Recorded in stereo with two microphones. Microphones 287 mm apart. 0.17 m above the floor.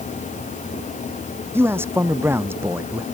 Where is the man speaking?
10° right (ahead or behind).